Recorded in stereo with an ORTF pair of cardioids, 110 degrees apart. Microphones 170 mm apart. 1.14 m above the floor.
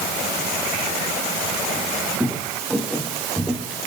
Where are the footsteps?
5° right, 4.5 m; by 3.8 s 10° right, 6 m.